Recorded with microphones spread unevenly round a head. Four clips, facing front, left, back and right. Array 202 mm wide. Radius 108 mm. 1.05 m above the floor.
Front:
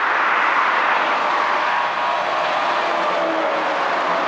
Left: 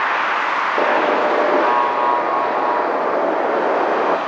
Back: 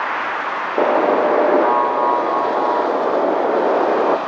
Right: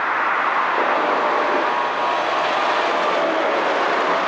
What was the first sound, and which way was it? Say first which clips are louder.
A buzzer: left 2 dB, back 4 dB; 165° left.